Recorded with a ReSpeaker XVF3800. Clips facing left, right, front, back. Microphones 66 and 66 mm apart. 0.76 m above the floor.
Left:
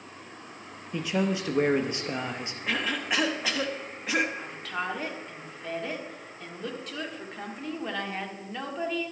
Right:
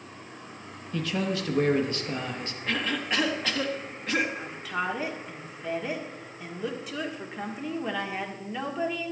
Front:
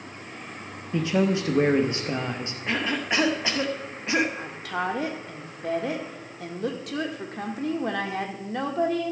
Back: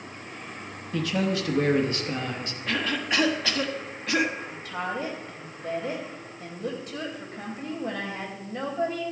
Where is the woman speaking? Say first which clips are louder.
Right 2 dB, front 4 dB; 5° right, 1.6 m.